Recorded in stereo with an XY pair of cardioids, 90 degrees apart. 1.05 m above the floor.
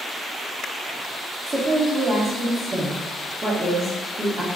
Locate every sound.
1.5 s a woman speaking: 40° right, 1.8 m